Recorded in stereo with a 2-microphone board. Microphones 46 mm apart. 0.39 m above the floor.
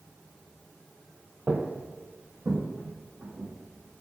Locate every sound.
1.5 s footsteps: 25° right (ahead or behind), 0.7 m; by 4.0 s 40° right (ahead or behind), 4 m